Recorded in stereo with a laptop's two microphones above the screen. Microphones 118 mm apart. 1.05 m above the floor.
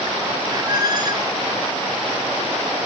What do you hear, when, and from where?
0.5 s a squeak: 35° right (ahead or behind), 1.0 m